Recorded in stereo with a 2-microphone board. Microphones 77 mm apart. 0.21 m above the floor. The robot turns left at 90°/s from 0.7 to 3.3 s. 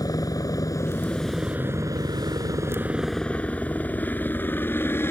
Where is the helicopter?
55° left (ahead or behind); by 5.1 s 30° left (ahead or behind).